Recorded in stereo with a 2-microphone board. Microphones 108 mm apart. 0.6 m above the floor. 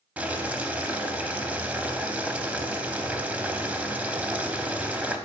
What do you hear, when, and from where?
0.2 s boiling: 15° right (ahead or behind), 0.6 m